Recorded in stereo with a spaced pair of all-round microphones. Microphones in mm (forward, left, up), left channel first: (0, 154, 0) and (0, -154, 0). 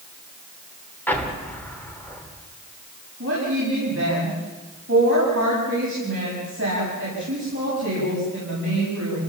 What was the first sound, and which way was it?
An explosion, 5° left (ahead or behind).